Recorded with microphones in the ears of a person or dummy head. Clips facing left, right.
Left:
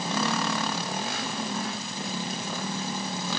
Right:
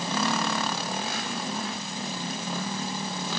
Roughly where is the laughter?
No laughter in this recording.